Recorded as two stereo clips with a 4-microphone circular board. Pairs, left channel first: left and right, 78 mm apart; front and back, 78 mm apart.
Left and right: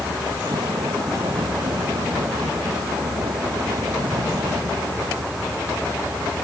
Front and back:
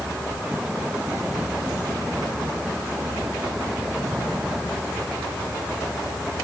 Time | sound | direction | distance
0.0 | a vehicle | 105° right | ?